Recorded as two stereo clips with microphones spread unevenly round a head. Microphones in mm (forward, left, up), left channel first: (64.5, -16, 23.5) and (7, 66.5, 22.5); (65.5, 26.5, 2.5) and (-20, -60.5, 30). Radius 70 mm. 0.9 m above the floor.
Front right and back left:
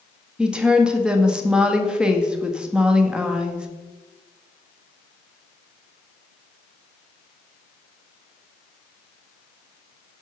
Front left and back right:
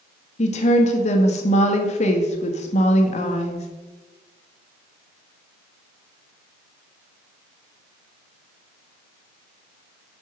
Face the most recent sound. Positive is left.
turn(degrees=45)